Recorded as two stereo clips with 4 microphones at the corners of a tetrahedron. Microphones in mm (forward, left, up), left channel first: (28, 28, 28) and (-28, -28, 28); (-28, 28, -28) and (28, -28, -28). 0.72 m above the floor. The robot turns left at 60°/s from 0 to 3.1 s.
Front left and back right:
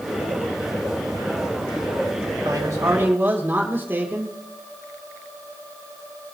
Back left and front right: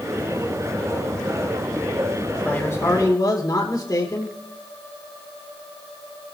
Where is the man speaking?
155° right, 2.5 m; by 4.3 s 165° left, 2.5 m.